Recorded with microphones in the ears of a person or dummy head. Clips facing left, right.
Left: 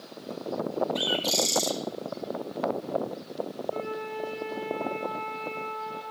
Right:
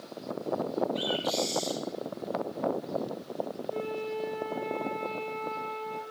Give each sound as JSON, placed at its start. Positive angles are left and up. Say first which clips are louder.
{"t": 0.9, "sound": "a bird", "louder": "left 1 dB", "side_deg": 55, "distance_m": 2.5}
{"t": 3.7, "sound": "a flute", "louder": "right 1 dB", "side_deg": -10, "distance_m": 4.0}